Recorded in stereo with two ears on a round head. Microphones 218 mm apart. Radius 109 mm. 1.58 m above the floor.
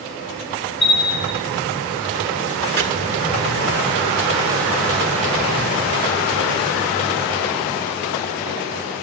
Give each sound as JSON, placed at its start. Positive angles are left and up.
{"t": 0.8, "sound": "a bell", "side_deg": 50, "distance_m": 5.5}
{"t": 2.8, "sound": "chopping", "side_deg": -45, "distance_m": 1.7}